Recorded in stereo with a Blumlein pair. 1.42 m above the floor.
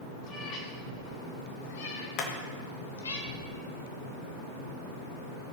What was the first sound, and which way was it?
A cat meowing, 30° left.